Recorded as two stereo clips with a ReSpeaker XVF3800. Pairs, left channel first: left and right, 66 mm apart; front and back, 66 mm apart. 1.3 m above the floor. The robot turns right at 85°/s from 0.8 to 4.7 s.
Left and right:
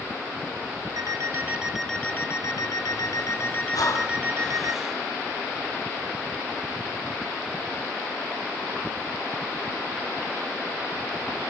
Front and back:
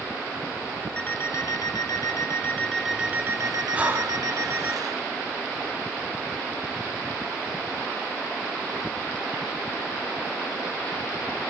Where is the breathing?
105° left, 3.5 m; by 5.0 s 170° right, 3.5 m.